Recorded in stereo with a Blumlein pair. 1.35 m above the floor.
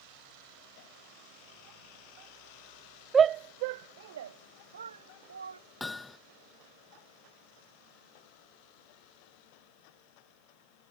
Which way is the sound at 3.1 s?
15° right.